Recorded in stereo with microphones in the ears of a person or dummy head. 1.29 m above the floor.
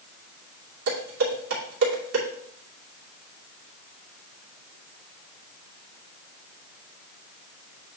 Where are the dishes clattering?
80° right, 2.5 m.